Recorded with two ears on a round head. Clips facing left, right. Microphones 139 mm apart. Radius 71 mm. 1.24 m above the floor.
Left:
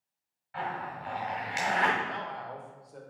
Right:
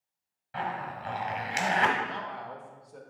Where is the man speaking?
Centre (ahead or behind), 1.0 m.